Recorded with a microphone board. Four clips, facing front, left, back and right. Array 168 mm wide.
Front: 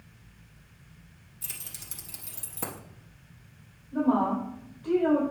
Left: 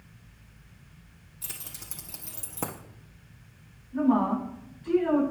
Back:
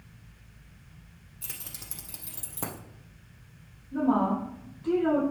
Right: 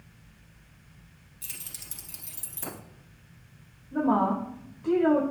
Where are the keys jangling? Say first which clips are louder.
Left 3 dB, back 2 dB; 140° left, 2 m; by 2.8 s 85° left, 1.8 m.